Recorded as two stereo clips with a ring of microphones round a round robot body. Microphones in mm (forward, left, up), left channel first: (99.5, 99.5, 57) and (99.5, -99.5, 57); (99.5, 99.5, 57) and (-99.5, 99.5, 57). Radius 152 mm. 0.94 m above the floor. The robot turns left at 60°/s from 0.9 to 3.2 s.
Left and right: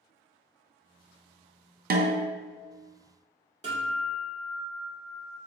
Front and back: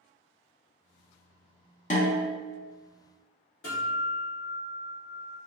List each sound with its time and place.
1.9 s a snare drum: 50° right, 0.6 m; by 2.4 s 75° right, 0.6 m
3.6 s a guitar: 35° right, 1.7 m